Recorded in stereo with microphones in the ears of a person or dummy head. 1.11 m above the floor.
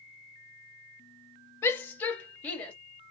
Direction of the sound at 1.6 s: 15° left (ahead or behind).